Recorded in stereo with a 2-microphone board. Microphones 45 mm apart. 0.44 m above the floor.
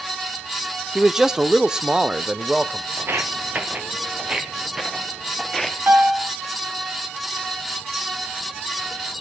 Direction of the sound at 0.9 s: 10° right (ahead or behind).